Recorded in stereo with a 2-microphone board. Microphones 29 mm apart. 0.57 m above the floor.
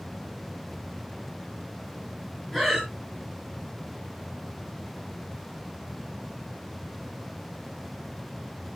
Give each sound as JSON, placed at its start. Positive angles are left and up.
{"t": 2.5, "sound": "breathing", "side_deg": 5, "distance_m": 4.0}